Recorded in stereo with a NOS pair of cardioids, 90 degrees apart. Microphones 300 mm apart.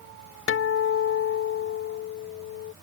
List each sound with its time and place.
0.5 s a guitar: 45° left